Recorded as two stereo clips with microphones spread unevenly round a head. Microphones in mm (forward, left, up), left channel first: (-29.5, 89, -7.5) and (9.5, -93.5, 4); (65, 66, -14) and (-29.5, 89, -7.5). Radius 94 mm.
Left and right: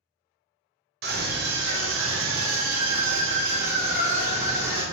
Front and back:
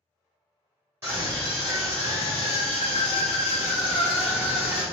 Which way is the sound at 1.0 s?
115° right.